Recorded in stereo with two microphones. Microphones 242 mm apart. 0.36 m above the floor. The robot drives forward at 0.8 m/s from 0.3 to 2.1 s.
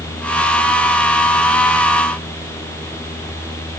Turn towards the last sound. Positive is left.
No sound to turn to.